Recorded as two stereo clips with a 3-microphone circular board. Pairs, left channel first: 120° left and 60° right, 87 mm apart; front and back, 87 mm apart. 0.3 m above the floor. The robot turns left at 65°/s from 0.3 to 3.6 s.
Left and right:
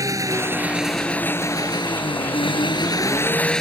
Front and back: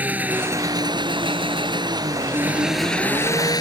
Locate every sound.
0.0 s an engine running: 110° right; by 3.6 s 35° left